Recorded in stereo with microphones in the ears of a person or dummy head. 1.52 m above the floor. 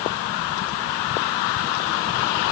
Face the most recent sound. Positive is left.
No sound to turn to.